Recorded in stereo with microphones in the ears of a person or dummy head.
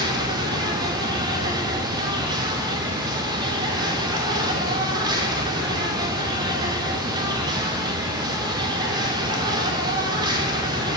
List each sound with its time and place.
0.0 s an insect: 25° right (ahead or behind), 2.5 m